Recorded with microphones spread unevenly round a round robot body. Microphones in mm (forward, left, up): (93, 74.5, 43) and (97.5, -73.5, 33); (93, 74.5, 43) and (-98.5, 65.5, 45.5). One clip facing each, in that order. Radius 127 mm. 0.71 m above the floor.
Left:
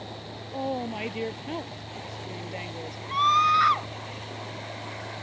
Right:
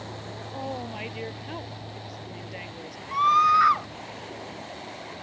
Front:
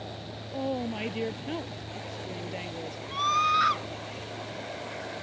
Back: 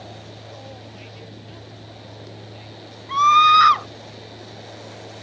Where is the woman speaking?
25° left.